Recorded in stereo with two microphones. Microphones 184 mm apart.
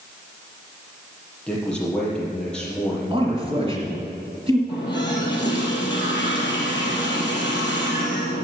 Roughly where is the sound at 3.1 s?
Right.